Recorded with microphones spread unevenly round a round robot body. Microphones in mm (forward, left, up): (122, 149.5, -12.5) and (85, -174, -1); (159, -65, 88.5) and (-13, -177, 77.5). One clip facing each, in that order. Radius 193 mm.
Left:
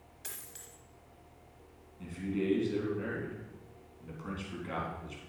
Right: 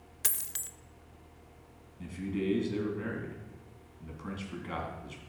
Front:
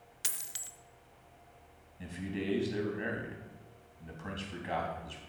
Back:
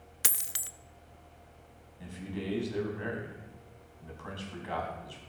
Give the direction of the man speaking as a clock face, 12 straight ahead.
1 o'clock.